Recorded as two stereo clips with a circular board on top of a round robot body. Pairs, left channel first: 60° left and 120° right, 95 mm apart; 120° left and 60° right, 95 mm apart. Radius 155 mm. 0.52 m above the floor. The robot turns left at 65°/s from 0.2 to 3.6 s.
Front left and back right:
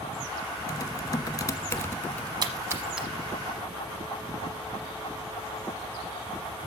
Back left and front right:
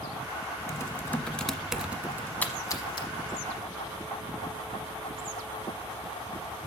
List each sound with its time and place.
0.7 s typing on a keyboard: 90° left, 1.5 m; by 2.3 s 15° right, 1.5 m
2.4 s a splash: 165° right, 1.0 m; by 3.1 s 150° left, 1.0 m